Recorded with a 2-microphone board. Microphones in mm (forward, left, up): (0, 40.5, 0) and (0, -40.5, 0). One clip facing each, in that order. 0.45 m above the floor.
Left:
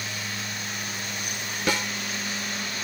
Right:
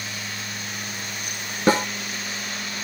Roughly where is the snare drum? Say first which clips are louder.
Right 8 dB; right.